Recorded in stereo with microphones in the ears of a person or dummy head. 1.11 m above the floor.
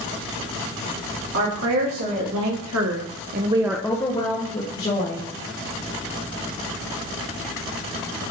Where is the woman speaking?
60° right (ahead or behind), 2.5 m; by 5.3 s 40° left (ahead or behind), 2 m.